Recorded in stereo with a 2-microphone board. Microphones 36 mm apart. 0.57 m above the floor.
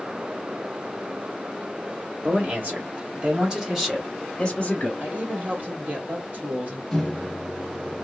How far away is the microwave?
About 0.7 m.